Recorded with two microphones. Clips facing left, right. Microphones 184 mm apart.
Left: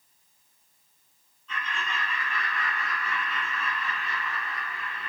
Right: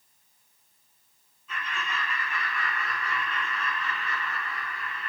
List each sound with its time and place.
1.5 s laughter: 5° right (ahead or behind), 2.5 m; by 5.1 s 30° left (ahead or behind), 0.9 m